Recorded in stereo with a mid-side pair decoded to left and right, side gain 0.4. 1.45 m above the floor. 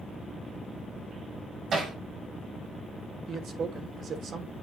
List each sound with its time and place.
1.7 s hammering: 55° right, 5.5 m
3.3 s a man speaking: 55° right, 2.5 m